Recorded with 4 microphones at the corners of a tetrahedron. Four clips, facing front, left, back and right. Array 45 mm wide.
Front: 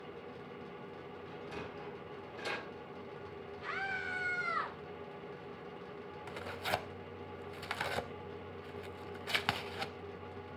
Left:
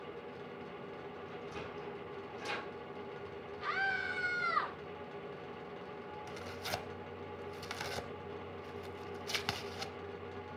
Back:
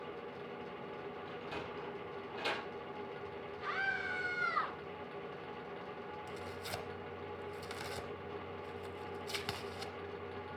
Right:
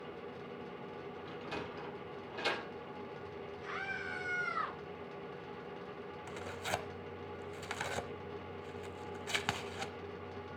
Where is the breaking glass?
No breaking glass in this recording.